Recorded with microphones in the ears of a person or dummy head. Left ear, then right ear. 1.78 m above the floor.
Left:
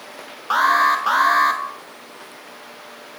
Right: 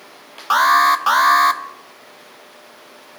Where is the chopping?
I don't hear chopping.